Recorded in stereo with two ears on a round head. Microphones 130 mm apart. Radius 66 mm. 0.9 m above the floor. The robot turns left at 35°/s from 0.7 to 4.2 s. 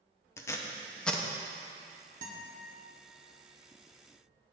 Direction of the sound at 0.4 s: 20° left (ahead or behind).